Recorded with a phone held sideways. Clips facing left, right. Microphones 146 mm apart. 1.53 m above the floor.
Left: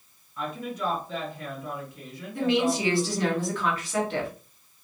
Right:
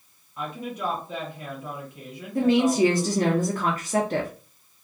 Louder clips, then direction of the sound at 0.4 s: Even; 20° right (ahead or behind).